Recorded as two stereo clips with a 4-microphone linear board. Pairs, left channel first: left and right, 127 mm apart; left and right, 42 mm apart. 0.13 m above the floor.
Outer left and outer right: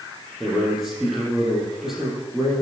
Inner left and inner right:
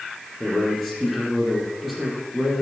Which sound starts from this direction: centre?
A man speaking, at 0.4 s.